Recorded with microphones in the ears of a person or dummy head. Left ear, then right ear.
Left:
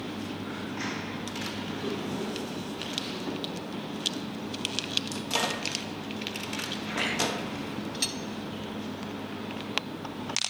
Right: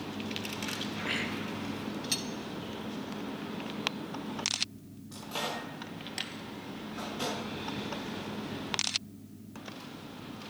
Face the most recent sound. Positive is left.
turn(degrees=70)  # may be behind; listen again after turning